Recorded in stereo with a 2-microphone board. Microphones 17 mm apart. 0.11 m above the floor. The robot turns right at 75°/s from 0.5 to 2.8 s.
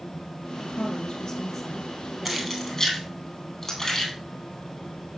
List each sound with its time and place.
0.6 s a woman speaking: 95° left, 3 m; by 3.1 s 95° right, 3 m
2.2 s keys jangling: 10° right (ahead or behind), 2.5 m; by 4.1 s 25° left (ahead or behind), 2.5 m